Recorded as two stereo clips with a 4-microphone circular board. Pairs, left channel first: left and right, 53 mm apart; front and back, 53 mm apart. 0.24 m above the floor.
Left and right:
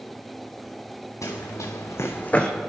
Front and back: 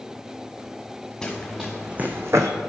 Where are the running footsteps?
85° left, 1.6 m; by 2.5 s 170° left, 0.9 m.